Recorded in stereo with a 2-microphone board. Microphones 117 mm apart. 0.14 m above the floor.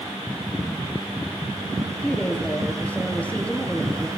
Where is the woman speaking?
15° left (ahead or behind), 2.5 m.